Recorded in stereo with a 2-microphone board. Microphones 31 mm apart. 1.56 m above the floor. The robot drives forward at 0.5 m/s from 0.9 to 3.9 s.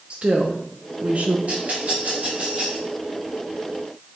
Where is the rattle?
45° right (ahead or behind), 3.5 m; by 2.8 s 35° right (ahead or behind), 4 m.